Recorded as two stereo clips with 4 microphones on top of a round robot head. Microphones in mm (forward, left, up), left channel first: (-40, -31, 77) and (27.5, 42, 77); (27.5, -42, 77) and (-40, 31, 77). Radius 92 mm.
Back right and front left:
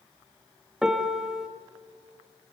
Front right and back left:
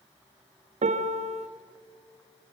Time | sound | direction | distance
0.8 | a piano | 130° left | 1.2 m